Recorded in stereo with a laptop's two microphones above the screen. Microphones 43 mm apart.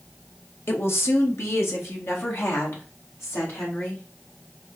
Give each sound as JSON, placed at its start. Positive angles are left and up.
{"t": 0.7, "sound": "a woman speaking", "side_deg": 60, "distance_m": 0.9}